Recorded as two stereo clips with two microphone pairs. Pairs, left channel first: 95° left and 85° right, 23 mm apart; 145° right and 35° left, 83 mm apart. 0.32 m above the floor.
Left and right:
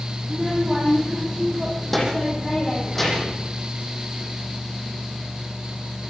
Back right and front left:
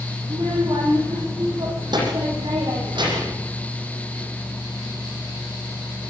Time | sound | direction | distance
0.2 | a child speaking | straight ahead | 10 m